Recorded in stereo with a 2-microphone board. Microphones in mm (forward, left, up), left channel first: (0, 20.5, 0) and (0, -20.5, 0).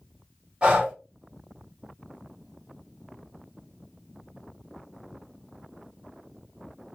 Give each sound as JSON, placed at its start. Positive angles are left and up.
{"t": 0.6, "sound": "breathing", "side_deg": -25, "distance_m": 2.0}